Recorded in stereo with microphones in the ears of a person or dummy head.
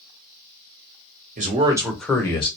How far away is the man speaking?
About 0.9 m.